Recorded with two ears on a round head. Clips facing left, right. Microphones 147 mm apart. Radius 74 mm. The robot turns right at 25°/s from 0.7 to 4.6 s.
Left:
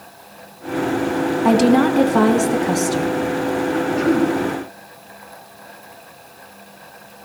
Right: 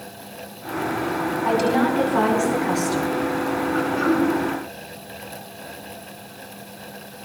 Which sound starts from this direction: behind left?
A woman speaking, at 1.4 s.